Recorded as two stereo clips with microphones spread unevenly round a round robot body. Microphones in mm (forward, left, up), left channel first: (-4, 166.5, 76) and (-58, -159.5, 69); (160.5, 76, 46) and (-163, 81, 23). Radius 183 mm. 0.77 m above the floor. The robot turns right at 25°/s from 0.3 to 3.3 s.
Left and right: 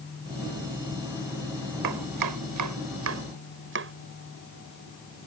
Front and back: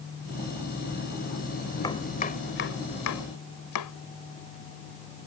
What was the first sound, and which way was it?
Chopping, 80° right.